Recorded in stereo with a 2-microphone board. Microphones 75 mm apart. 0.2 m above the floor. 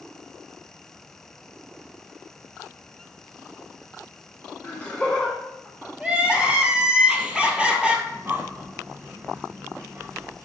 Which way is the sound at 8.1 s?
30° right (ahead or behind).